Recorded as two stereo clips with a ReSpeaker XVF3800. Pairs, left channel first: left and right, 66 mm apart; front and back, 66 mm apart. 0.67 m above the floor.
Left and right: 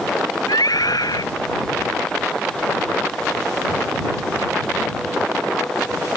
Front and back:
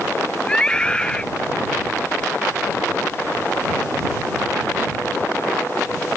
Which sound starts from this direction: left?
A scream, at 0.5 s.